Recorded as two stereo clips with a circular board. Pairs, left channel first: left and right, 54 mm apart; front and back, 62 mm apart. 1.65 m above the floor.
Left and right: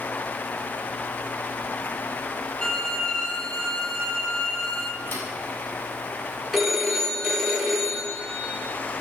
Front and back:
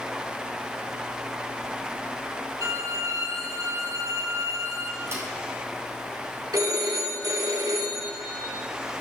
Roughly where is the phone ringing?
Behind.